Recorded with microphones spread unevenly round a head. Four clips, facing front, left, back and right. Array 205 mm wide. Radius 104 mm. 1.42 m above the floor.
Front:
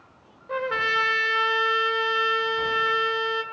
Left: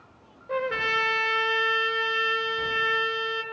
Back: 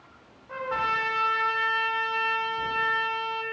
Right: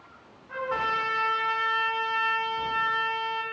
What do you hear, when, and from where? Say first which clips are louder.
0.5 s a trumpet: left 1 dB, front 2 dB; 60° left, 3 m